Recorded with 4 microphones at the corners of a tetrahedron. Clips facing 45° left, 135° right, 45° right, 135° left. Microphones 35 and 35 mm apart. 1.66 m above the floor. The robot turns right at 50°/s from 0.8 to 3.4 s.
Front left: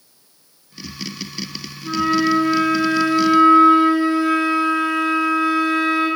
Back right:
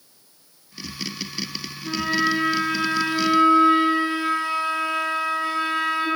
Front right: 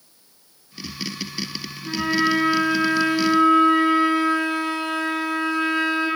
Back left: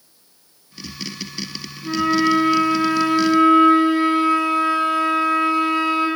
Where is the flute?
100° left, 1.2 m; by 6.1 s straight behind, 1.2 m.